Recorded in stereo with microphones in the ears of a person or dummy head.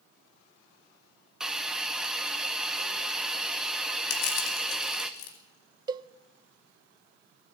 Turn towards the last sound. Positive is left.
turn(degrees=-20)  # may be behind; listen again after turning